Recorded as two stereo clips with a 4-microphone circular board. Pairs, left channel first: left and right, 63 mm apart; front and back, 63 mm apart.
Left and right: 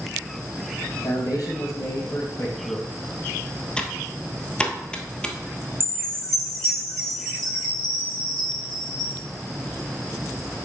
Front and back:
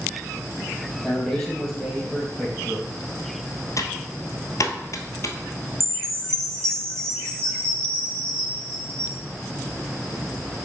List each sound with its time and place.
0.9 s a man speaking: 85° left, 2.5 m
3.8 s typing on a keyboard: 15° left, 0.9 m
5.8 s a chime: 170° left, 1.9 m